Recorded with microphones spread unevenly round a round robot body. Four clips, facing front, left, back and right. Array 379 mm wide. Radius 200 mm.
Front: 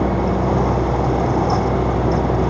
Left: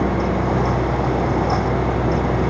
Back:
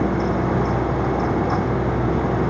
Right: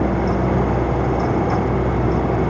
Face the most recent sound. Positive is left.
No sound to turn to.